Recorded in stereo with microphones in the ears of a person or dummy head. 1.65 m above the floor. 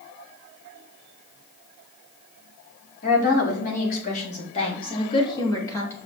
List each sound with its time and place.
3.0 s a woman speaking: 50° left (ahead or behind), 4 m; by 6.0 s 10° left (ahead or behind), 2.5 m